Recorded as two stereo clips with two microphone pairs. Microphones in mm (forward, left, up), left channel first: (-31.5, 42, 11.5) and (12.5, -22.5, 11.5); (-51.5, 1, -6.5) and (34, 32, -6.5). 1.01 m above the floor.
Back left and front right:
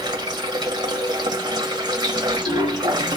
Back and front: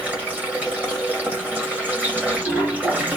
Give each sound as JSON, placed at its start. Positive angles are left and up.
{"t": 0.0, "sound": "running water", "azimuth_deg": -50, "distance_m": 1.8}